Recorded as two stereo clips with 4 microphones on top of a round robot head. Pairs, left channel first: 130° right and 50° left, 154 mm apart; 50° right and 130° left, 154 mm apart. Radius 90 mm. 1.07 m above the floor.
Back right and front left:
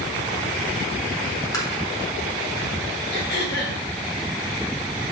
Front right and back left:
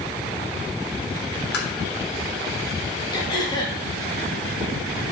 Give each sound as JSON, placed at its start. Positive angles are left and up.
{"t": 1.5, "sound": "tapping", "azimuth_deg": -65, "distance_m": 3.5}
{"t": 3.1, "sound": "throat clearing", "azimuth_deg": -115, "distance_m": 3.0}